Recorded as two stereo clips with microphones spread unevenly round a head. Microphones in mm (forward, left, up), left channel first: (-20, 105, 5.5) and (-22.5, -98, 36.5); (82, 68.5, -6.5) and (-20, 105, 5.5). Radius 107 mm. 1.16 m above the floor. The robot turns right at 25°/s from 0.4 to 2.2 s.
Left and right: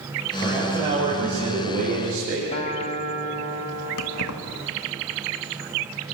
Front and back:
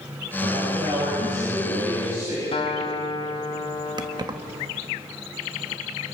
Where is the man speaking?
175° right, 7.5 m; by 2.4 s 130° right, 7.5 m.